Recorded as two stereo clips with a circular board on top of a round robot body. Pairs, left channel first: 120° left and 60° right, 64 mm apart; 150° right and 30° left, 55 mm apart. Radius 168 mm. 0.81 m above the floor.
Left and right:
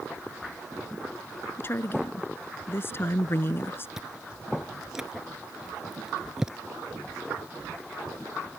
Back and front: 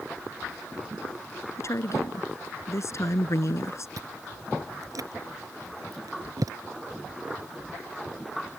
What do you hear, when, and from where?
1.6 s a woman speaking: 175° left
4.0 s chewing: 25° left